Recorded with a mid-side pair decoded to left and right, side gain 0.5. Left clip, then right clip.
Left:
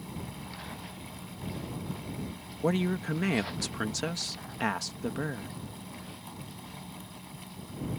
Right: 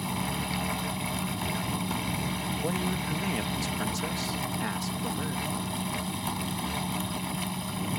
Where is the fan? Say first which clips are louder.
Right 11 dB; 70° right.